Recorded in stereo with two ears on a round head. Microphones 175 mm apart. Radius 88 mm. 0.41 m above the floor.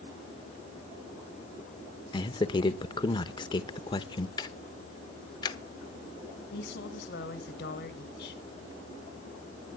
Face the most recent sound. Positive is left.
turn(degrees=55)  # may be behind; listen again after turning